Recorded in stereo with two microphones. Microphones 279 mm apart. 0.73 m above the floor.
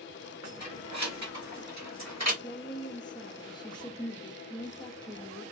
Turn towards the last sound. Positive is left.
turn(degrees=15)  # may be behind; listen again after turning